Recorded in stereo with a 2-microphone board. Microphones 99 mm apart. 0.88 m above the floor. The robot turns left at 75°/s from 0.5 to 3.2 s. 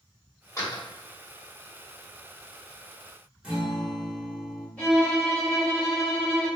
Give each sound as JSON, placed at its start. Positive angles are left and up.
{"t": 0.6, "sound": "a door slam", "side_deg": 30, "distance_m": 0.9}
{"t": 3.4, "sound": "a guitar", "side_deg": -10, "distance_m": 1.2}
{"t": 4.8, "sound": "a violin", "side_deg": 15, "distance_m": 1.8}